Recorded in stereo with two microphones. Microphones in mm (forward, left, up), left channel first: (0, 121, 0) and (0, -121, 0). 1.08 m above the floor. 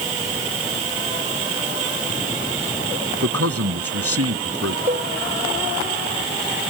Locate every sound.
3.2 s a man speaking: 75° right (ahead or behind)
4.9 s a cowbell: 35° right (ahead or behind)